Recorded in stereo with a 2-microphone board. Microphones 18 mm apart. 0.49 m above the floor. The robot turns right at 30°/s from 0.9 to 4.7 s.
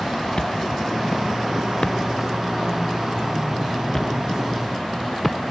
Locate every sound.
0.4 s a thud: 65° left (ahead or behind); by 5.4 s centre (ahead or behind)